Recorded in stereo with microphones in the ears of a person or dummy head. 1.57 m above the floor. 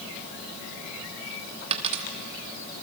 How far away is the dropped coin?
About 1.3 m.